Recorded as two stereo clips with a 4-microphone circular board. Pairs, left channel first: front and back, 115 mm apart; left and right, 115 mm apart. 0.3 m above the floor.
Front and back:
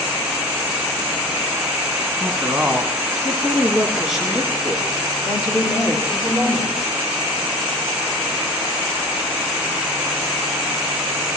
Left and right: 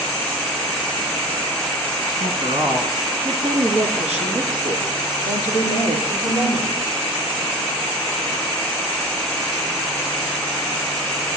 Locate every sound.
2.2 s a woman speaking: 105° right, 2 m; by 6.7 s 90° right, 6.5 m